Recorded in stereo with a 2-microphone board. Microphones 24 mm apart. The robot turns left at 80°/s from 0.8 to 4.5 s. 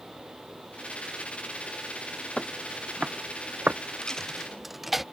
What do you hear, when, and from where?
2.4 s footsteps: 5° left (ahead or behind); by 3.8 s 75° right (ahead or behind)
4.0 s a dropped coin: 35° left (ahead or behind); by 5.0 s 5° right (ahead or behind)